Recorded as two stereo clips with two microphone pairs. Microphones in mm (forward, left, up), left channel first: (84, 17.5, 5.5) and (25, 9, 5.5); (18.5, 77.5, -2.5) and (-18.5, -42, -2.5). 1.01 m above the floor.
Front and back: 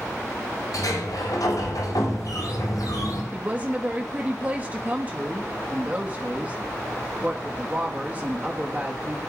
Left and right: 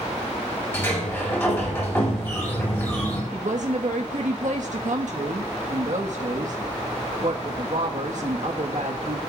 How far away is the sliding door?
About 7 m.